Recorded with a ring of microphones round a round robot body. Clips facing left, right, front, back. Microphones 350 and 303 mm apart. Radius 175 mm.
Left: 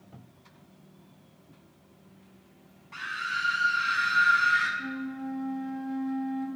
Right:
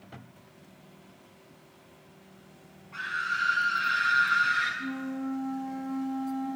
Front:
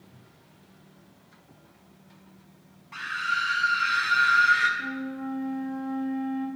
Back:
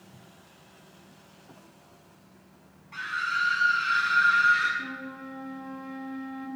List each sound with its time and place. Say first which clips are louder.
2.9 s a scream: right 1 dB, front 1 dB; 65° left, 6 m; by 4.7 s 45° left, 6.5 m
4.8 s a flute: right 2 dB, front 10 dB; 105° left, 5 m